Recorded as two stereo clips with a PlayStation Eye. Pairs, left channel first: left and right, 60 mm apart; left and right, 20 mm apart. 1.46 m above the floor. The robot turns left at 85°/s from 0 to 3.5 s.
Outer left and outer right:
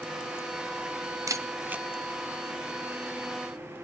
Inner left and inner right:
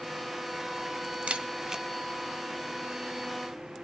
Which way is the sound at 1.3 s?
65° right (ahead or behind).